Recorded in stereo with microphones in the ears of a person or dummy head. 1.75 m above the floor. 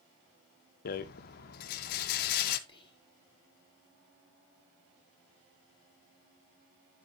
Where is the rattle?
55° left (ahead or behind), 0.7 m.